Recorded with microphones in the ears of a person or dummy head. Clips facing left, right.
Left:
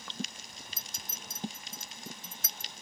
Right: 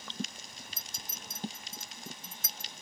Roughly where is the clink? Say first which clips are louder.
Even; left.